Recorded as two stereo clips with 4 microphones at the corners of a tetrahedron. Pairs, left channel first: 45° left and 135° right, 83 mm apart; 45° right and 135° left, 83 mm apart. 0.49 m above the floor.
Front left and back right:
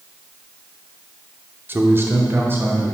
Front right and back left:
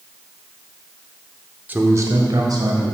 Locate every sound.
1.7 s a man speaking: 175° right, 0.8 m; by 2.9 s 165° left, 2.5 m